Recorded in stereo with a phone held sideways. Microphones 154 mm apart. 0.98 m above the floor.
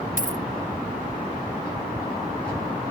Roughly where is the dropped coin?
Left.